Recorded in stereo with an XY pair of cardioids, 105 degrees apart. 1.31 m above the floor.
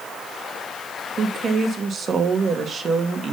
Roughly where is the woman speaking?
Ahead right.